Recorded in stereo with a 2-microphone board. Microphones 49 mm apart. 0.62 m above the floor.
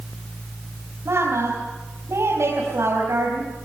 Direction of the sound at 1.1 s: 65° right (ahead or behind).